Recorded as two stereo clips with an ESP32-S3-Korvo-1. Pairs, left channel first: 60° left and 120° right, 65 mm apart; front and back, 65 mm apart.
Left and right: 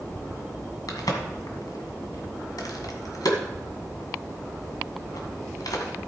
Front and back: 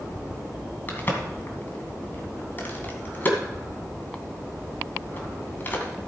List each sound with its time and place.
0.9 s a crack: 55° left, 2.0 m